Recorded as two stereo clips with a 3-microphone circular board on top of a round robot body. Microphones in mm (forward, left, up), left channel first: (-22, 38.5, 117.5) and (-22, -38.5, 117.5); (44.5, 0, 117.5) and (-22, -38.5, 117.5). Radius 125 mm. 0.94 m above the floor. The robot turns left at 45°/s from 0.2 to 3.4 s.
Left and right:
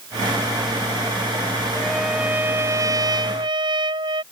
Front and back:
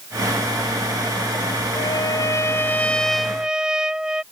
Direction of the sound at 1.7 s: 5° left.